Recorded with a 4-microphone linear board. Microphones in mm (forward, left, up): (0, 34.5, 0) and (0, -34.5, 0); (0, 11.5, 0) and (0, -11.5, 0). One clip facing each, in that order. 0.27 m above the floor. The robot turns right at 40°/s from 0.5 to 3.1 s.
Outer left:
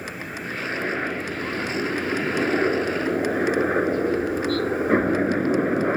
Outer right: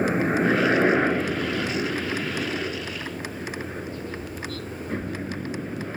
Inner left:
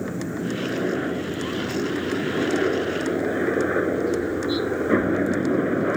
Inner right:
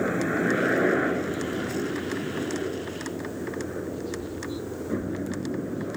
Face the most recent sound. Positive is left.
turn(degrees=55)  # may be behind; listen again after turning